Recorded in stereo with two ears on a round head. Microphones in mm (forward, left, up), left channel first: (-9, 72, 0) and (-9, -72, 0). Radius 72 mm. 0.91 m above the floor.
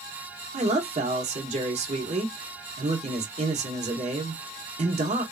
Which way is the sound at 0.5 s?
40° right (ahead or behind).